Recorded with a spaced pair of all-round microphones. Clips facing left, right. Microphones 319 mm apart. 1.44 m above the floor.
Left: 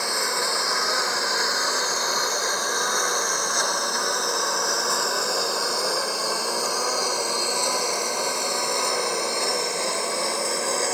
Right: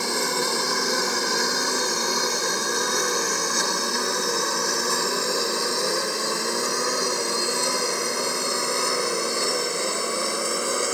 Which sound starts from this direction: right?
A lawn mower, at 0.0 s.